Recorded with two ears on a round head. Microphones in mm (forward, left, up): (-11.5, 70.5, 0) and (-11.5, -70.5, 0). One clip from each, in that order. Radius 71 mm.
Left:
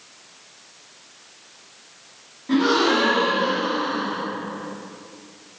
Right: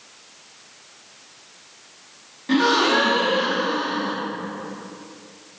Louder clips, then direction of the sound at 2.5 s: Right 1 dB; 50° right (ahead or behind).